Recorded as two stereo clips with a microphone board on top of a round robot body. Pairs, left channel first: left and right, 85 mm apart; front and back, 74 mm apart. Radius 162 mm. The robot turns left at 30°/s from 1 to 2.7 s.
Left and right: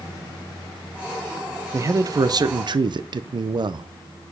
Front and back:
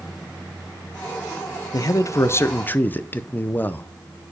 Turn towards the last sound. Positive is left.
turn(degrees=-65)